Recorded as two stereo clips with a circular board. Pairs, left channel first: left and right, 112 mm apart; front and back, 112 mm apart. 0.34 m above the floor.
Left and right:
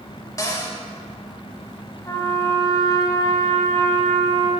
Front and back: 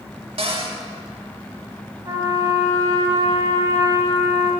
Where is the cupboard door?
150° left, 0.8 m.